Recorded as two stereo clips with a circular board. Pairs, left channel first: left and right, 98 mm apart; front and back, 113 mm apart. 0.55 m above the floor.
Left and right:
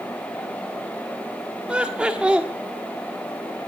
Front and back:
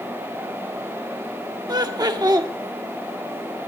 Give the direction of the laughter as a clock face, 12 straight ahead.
5 o'clock.